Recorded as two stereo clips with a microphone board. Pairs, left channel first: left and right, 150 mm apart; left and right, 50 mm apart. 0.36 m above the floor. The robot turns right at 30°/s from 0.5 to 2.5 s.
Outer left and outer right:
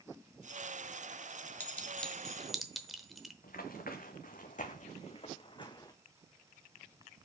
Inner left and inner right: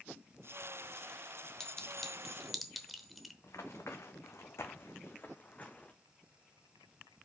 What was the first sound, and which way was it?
A clink, 10° left (ahead or behind).